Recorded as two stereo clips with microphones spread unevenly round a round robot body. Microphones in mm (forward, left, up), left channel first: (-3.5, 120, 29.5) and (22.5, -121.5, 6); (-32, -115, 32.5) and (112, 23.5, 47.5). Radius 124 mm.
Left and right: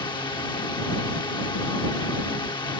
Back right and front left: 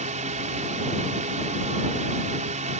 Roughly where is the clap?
I don't hear a clap.